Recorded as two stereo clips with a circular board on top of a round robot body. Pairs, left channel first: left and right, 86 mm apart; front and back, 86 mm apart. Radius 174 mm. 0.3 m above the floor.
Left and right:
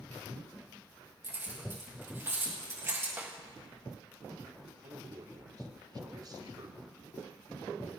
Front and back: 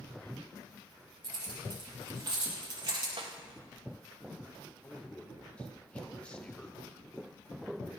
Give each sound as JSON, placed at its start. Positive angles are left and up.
{"t": 1.2, "sound": "keys jangling", "azimuth_deg": -150, "distance_m": 6.5}
{"t": 3.2, "sound": "a snare drum", "azimuth_deg": -160, "distance_m": 1.7}
{"t": 4.8, "sound": "a man speaking", "azimuth_deg": -75, "distance_m": 1.6}